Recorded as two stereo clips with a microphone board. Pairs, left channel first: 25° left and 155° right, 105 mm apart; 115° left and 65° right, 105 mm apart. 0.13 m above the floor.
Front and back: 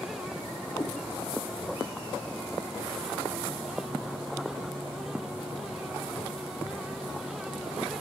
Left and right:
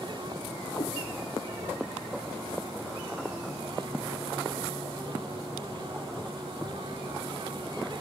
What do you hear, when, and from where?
0.8 s a cat meowing: 75° left, 3.5 m